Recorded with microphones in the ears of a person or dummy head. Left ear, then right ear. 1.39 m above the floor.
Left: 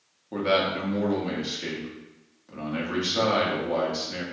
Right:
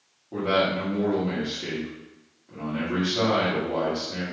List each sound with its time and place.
0.3 s a man speaking: 75° left (ahead or behind), 1.1 m